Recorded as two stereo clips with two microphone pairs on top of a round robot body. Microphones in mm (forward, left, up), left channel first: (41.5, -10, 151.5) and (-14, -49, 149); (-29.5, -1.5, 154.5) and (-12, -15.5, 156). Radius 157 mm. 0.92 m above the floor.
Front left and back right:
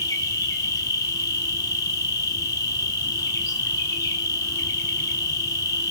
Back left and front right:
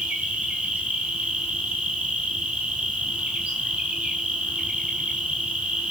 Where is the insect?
5° right, 5 m.